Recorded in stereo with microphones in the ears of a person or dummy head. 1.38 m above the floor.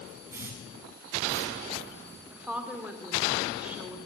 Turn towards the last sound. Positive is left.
turn(degrees=-5)  # may be behind; listen again after turning